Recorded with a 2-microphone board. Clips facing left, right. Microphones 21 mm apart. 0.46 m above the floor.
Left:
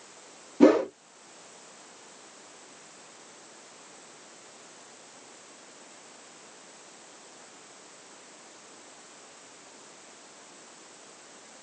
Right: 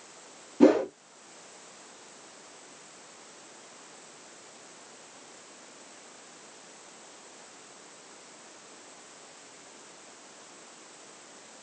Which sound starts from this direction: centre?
A whoosh, at 0.6 s.